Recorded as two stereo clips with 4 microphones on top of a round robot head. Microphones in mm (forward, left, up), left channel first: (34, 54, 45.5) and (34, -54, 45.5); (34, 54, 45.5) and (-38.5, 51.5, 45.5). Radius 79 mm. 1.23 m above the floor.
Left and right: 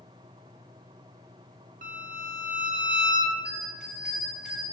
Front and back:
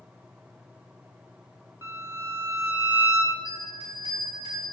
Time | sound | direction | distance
1.8 | a violin | 105° right | 1.1 m
3.5 | a bell | 175° right | 8.5 m